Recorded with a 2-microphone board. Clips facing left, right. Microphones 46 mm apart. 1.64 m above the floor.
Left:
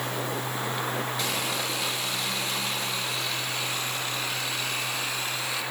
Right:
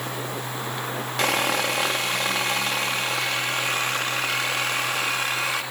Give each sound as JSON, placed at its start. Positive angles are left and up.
{"t": 1.2, "sound": "sawing", "side_deg": -65, "distance_m": 2.5}